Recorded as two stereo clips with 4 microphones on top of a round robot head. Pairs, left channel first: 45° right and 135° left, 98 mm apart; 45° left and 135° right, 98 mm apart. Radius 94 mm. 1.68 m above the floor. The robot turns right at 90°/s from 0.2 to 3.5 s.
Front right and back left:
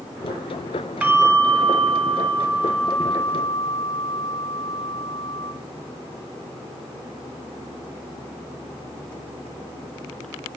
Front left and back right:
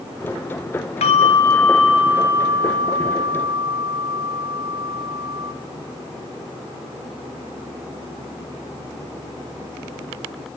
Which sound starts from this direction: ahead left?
A bell, at 1.0 s.